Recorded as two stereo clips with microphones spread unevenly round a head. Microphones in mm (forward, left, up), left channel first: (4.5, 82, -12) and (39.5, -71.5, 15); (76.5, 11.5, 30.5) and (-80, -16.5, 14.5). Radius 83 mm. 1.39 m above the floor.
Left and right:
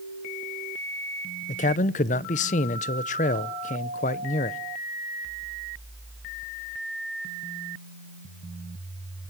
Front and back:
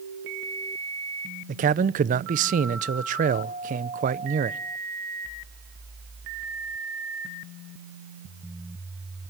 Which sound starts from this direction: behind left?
A man speaking, at 1.5 s.